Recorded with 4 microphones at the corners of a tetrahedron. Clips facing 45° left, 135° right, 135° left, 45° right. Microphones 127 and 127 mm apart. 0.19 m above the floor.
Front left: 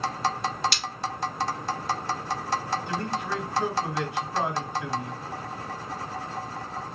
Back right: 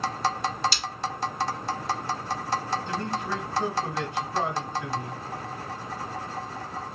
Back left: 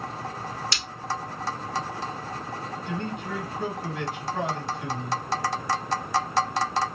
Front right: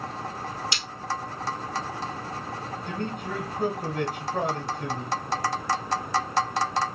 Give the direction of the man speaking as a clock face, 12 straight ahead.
1 o'clock.